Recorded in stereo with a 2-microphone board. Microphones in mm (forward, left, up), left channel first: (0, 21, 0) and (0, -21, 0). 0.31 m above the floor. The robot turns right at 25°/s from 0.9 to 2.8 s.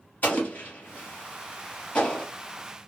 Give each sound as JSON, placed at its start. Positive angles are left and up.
{"t": 0.2, "sound": "an explosion", "side_deg": 40, "distance_m": 1.6}